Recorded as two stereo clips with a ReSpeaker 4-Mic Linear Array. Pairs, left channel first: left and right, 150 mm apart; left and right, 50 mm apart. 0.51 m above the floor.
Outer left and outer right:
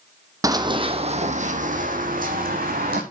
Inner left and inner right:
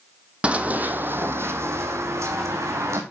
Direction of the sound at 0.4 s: 25° right (ahead or behind).